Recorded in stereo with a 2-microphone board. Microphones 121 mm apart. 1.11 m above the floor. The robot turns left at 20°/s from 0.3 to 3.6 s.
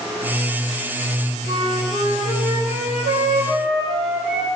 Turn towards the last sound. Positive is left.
turn(degrees=-115)